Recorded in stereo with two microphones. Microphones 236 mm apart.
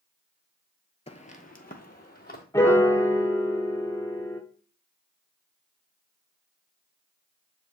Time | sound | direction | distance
1.1 | footsteps | 25° left (ahead or behind) | 0.6 m
2.5 | a piano | 10° left (ahead or behind) | 0.6 m